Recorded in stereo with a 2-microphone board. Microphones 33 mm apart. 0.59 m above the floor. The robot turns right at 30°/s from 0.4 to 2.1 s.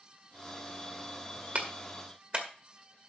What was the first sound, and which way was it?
A clap, 45° right (ahead or behind).